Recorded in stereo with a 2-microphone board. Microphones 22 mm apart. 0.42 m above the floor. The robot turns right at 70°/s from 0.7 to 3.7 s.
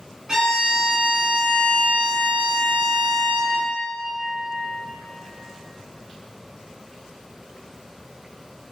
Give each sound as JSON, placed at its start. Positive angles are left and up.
{"t": 0.3, "sound": "a violin", "azimuth_deg": -145, "distance_m": 1.9}